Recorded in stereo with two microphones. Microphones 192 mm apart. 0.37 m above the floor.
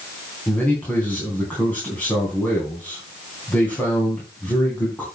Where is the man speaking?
10° left (ahead or behind), 3.5 m.